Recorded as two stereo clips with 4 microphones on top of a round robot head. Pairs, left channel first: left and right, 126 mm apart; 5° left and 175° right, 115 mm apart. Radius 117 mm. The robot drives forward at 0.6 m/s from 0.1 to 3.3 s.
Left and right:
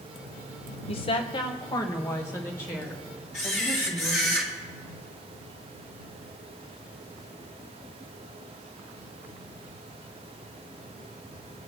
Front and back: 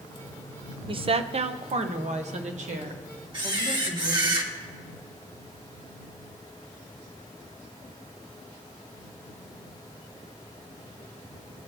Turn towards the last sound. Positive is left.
turn(degrees=135)